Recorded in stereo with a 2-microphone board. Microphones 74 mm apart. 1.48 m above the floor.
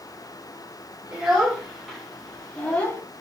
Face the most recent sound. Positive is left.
turn(degrees=30)  # may be behind; listen again after turning